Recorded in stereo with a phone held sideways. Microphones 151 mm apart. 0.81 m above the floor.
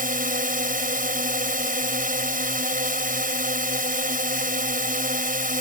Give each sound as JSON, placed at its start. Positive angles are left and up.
{"t": 0.0, "sound": "a drone", "side_deg": -65}